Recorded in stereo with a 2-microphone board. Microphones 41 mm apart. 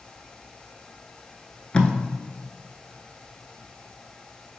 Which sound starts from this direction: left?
Tape being pulled, at 1.7 s.